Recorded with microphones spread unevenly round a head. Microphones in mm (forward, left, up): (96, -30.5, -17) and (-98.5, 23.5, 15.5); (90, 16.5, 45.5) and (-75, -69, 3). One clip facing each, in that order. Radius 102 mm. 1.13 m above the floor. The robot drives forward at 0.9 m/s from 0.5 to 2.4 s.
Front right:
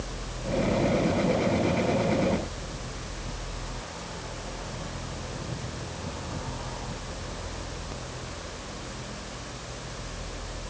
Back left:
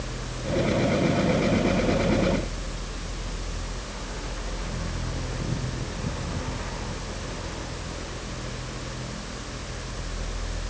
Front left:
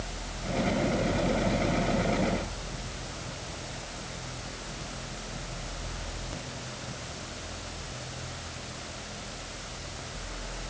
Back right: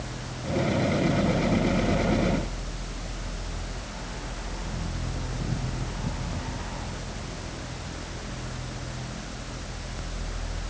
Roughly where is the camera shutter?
I don't hear a camera shutter.